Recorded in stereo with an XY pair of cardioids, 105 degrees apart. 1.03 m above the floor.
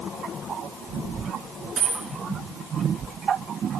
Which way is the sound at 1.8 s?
50° right.